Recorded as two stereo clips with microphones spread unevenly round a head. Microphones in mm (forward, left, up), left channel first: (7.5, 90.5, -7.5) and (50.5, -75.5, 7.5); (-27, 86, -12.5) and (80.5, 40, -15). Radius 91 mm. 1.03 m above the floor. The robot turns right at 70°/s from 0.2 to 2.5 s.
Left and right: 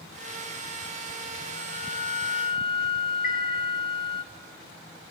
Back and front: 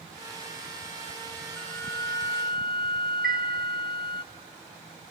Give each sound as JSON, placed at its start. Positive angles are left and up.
{"t": 1.6, "sound": "a flute", "azimuth_deg": 75, "distance_m": 0.6}
{"t": 3.2, "sound": "a chime", "azimuth_deg": 65, "distance_m": 7.0}